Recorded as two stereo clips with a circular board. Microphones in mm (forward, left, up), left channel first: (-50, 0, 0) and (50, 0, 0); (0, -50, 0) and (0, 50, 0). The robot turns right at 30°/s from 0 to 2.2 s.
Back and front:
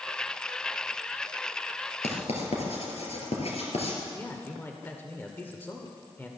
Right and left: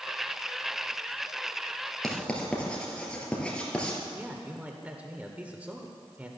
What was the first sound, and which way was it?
Writing, 175° right.